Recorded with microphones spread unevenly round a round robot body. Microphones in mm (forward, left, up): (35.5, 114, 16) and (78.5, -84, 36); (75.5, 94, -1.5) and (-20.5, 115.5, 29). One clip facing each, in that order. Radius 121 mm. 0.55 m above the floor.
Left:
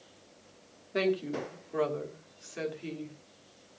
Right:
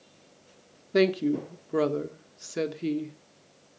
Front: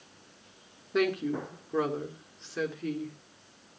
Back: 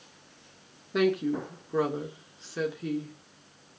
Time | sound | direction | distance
0.9 | a woman speaking | 90° right | 1.6 m